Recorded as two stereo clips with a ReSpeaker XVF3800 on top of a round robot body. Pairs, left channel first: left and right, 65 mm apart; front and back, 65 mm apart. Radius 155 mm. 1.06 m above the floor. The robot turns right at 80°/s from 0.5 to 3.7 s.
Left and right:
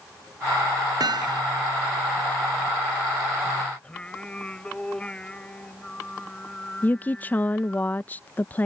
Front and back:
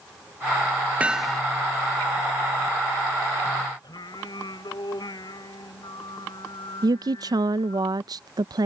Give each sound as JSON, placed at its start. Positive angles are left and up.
{"t": 1.0, "sound": "hammering", "azimuth_deg": -110}
{"t": 3.8, "sound": "singing", "azimuth_deg": 15}
{"t": 6.8, "sound": "a woman speaking", "azimuth_deg": 155}